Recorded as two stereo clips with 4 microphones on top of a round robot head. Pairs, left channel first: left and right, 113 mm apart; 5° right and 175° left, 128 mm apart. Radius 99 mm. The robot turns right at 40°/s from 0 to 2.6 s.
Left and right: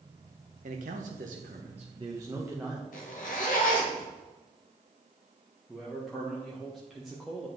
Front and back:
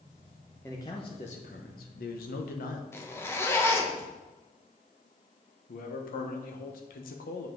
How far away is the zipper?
About 1.0 m.